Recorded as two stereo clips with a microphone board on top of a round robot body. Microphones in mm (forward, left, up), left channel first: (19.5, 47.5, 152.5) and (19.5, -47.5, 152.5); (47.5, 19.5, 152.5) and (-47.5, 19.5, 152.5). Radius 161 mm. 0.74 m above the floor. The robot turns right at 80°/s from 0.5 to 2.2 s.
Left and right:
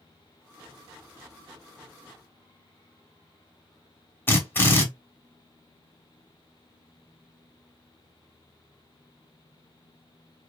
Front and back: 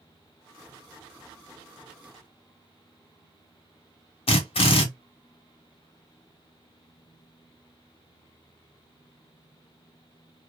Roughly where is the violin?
I don't hear a violin.